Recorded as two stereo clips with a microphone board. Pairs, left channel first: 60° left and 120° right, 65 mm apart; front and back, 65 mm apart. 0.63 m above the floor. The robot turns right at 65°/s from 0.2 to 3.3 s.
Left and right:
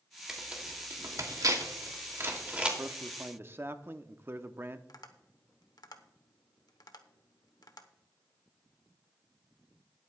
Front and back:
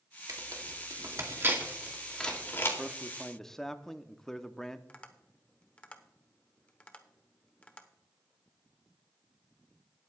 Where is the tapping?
70° left, 1.0 m.